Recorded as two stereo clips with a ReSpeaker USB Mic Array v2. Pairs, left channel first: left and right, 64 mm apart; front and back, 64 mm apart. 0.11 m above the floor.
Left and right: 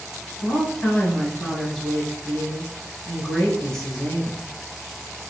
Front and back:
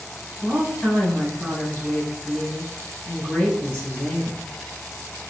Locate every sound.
0.4 s a woman speaking: 30° left, 1.2 m